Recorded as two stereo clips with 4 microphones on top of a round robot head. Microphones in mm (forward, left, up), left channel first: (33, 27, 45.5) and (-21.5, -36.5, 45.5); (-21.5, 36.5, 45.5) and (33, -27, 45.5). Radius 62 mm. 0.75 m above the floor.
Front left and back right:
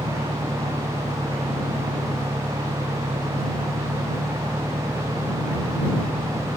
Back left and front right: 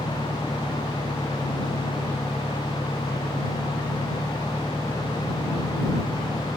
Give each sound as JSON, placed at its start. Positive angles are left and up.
{"t": 0.0, "sound": "an engine running", "azimuth_deg": -150}